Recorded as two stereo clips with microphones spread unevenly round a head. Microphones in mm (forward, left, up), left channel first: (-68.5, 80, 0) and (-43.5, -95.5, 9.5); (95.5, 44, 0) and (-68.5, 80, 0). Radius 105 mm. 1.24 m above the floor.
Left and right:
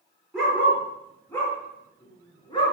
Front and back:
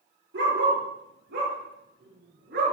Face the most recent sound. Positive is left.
turn(degrees=160)